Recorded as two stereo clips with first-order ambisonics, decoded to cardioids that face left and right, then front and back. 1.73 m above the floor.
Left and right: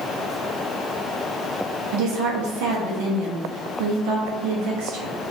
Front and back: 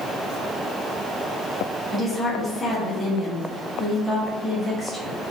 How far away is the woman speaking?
About 1.0 m.